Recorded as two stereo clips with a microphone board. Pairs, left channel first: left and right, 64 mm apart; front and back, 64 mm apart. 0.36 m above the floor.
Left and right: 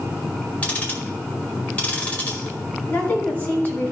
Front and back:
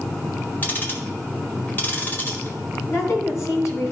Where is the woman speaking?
30° left, 3 m.